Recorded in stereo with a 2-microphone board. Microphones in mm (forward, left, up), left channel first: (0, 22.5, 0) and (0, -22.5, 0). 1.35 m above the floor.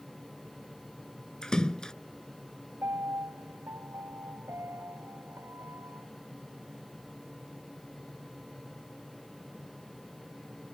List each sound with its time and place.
1.4 s a splash: 15° left (ahead or behind)
2.8 s a piano: 70° right (ahead or behind)